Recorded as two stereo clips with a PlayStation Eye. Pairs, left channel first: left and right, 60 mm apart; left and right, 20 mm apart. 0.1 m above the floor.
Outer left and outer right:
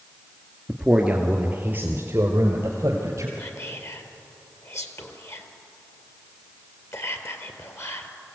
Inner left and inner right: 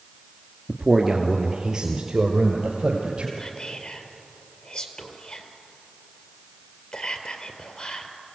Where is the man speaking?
5° right (ahead or behind), 1.5 m; by 3.3 s 50° right (ahead or behind), 3 m.